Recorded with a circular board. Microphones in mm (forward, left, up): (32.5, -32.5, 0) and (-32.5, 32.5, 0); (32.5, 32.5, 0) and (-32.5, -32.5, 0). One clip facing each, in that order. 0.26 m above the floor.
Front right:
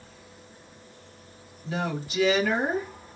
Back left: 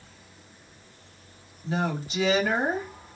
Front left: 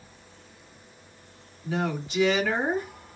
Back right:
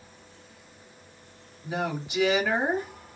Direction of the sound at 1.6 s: 160° left.